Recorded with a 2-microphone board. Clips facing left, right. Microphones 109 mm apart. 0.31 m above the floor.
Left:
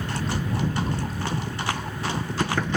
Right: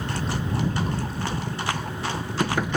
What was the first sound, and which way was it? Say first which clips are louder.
Knocking: right 1 dB; 10° right (ahead or behind).